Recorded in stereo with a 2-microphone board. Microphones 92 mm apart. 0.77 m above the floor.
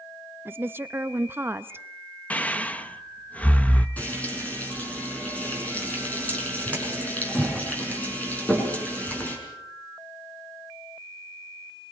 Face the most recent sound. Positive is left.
turn(degrees=15)  # may be behind; listen again after turning